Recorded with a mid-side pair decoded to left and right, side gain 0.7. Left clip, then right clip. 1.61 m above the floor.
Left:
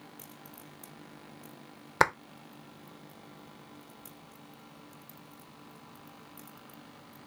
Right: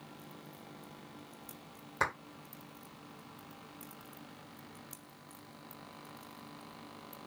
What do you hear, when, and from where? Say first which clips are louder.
2.0 s a clap: left 8 dB; 50° left, 0.7 m